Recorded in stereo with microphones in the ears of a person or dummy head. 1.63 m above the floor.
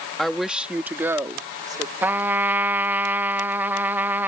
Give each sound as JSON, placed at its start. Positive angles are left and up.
{"t": 0.2, "sound": "a woman speaking", "side_deg": 5}
{"t": 2.0, "sound": "a trumpet", "side_deg": -10}